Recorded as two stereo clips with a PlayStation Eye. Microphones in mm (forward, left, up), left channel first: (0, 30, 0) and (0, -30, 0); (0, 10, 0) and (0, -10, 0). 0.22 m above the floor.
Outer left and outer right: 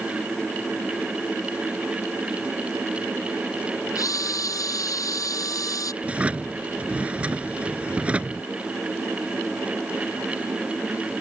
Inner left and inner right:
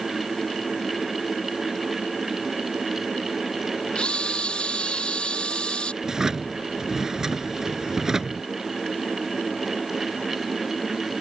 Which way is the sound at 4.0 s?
70° left (ahead or behind).